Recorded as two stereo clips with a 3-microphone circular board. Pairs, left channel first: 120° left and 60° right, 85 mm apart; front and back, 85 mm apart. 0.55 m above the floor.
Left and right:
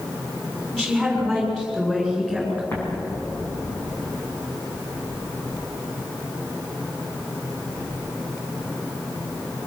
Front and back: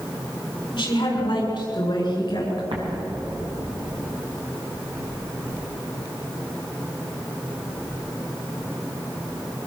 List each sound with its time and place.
0.7 s a woman speaking: 35° left, 6 m
2.7 s an explosion: 175° right, 6 m